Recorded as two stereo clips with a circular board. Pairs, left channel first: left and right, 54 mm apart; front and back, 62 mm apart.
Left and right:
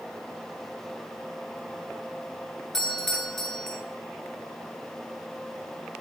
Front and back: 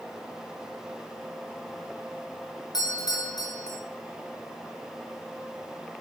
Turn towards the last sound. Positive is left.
turn(degrees=10)